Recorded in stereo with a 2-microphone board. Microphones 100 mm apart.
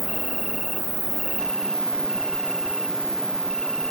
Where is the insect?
5° left (ahead or behind).